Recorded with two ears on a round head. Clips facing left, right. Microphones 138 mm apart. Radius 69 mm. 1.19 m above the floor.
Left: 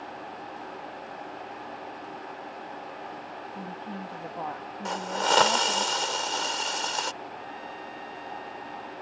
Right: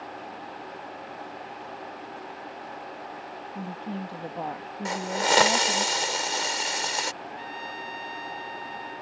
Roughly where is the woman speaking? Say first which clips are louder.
Right 5 dB; right.